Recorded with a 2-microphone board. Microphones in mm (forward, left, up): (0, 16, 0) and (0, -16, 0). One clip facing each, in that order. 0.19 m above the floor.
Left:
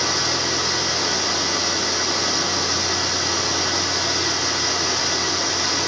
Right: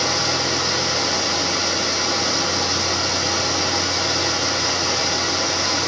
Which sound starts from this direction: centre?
Running water, at 0.0 s.